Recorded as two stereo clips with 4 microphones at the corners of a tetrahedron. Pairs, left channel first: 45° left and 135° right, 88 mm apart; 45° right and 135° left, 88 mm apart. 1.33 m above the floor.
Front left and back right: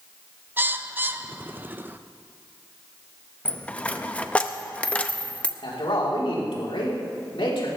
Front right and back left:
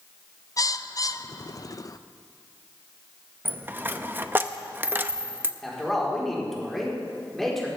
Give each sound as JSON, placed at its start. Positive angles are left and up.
{"t": 0.6, "sound": "a bird", "azimuth_deg": -75, "distance_m": 0.5}
{"t": 3.5, "sound": "a dropped coin", "azimuth_deg": 100, "distance_m": 0.6}
{"t": 5.6, "sound": "a man speaking", "azimuth_deg": 40, "distance_m": 4.5}